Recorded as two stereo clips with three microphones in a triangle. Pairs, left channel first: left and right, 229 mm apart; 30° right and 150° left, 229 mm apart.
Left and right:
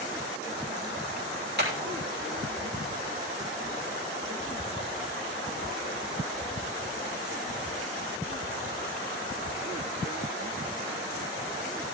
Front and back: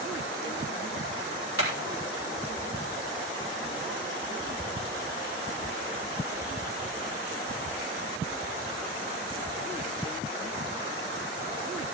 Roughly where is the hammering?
Ahead right.